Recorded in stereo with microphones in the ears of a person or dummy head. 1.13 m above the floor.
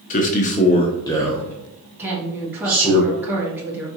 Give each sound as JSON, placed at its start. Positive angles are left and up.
{"t": 0.1, "sound": "a man speaking", "side_deg": 40, "distance_m": 0.7}
{"t": 2.0, "sound": "a woman speaking", "side_deg": -10, "distance_m": 1.5}